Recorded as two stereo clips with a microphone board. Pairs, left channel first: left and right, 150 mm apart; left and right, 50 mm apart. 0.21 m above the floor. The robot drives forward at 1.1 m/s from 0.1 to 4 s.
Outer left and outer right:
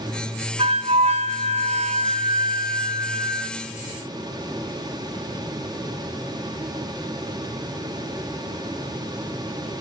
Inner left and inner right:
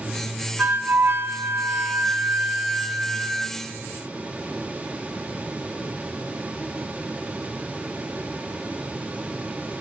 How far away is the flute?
About 1.6 m.